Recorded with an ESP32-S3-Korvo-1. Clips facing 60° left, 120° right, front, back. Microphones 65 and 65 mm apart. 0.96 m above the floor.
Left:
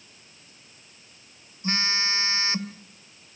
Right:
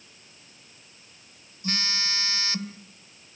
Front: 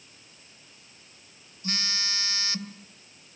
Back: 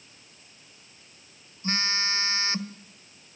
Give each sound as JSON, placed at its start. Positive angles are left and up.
{"t": 1.6, "sound": "a phone buzzing", "azimuth_deg": 125, "distance_m": 1.5}